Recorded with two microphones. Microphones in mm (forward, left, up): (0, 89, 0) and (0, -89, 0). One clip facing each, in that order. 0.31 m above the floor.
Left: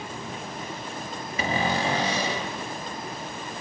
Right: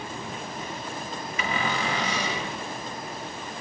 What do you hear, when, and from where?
1.4 s a cupboard door: 35° left (ahead or behind), 1.6 m